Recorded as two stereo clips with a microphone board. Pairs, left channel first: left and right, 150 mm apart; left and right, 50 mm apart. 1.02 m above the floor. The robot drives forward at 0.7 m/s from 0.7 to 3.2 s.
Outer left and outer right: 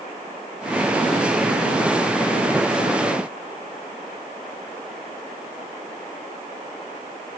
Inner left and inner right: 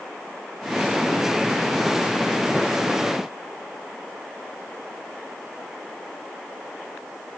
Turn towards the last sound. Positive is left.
No sound to turn to.